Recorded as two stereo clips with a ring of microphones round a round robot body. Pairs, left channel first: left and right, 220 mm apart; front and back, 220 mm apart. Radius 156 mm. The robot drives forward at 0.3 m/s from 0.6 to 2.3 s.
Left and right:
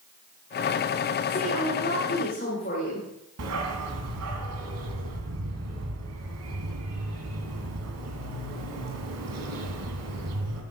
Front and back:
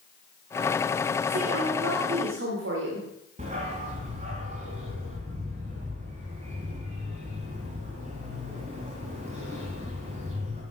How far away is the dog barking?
About 2 m.